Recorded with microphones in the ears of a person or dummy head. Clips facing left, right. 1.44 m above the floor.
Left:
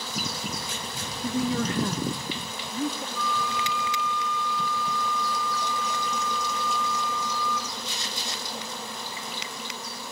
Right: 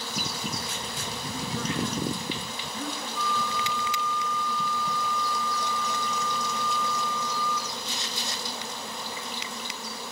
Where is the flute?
5° right (ahead or behind), 6.5 m.